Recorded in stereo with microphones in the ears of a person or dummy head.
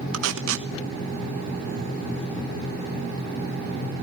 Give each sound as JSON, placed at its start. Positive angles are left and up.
{"t": 0.1, "sound": "tape being pulled", "side_deg": -80, "distance_m": 1.2}